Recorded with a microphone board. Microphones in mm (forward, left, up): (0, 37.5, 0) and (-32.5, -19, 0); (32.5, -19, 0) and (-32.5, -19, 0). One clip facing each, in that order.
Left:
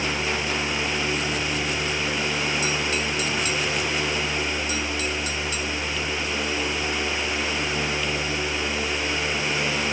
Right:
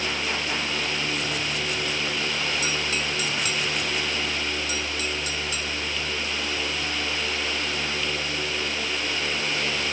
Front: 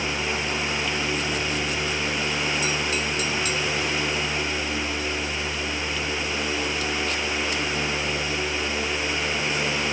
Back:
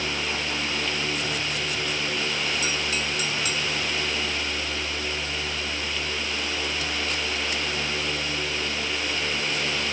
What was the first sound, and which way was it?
Only background noise.